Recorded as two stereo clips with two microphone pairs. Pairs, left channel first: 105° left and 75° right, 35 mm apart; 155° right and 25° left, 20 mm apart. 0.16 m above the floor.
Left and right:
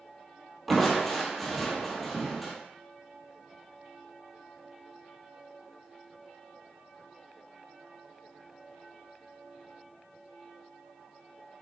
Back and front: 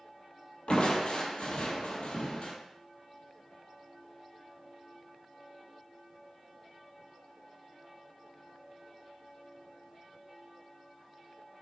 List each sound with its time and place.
0.7 s crushing: 170° right, 1.1 m